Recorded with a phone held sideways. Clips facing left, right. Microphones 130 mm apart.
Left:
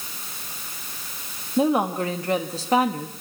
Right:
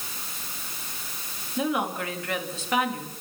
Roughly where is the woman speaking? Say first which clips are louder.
Left 6 dB; left.